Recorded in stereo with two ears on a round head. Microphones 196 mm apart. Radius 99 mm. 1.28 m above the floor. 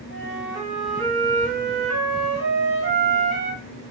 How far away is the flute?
About 1.7 m.